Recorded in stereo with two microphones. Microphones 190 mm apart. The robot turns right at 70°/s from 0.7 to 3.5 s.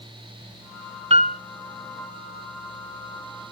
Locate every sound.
1.1 s a piano: 30° right (ahead or behind), 0.5 m; by 1.4 s 50° right (ahead or behind), 0.5 m